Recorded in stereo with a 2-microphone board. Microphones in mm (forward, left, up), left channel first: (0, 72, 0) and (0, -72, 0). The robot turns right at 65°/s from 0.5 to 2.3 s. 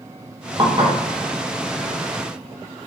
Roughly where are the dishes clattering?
Right.